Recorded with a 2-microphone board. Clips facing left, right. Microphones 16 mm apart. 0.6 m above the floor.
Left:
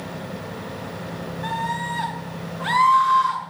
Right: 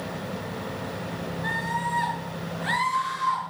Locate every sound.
1.4 s a scream: 80° left, 5.5 m